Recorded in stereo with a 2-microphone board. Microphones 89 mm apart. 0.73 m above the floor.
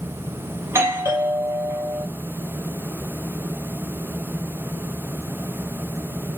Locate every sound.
0.6 s a doorbell: 30° right (ahead or behind), 1.1 m